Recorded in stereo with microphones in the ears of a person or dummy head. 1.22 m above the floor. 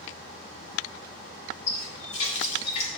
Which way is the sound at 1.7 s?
35° left (ahead or behind).